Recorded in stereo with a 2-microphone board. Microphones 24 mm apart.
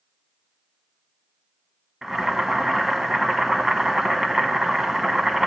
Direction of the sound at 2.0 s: 25° right (ahead or behind).